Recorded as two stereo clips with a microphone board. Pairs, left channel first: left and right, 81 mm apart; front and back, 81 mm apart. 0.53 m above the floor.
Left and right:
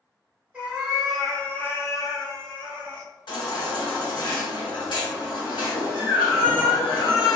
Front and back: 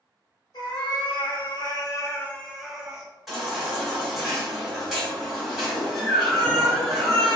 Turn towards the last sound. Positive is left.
turn(degrees=90)